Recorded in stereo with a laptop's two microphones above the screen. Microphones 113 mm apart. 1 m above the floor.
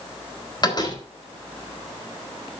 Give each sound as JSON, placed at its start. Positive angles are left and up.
{"t": 0.6, "sound": "a door slam", "side_deg": 40, "distance_m": 4.0}